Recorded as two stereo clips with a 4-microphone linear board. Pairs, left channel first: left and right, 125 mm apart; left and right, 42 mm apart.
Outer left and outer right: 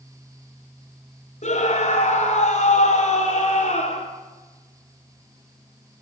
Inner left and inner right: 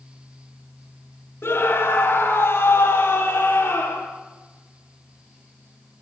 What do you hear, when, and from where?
1.4 s a scream: 65° left (ahead or behind), 2.5 m